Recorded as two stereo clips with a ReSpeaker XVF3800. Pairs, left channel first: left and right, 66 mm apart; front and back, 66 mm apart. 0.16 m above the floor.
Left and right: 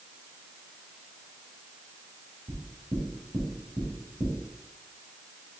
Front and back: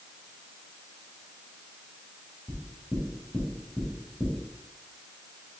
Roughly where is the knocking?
Right.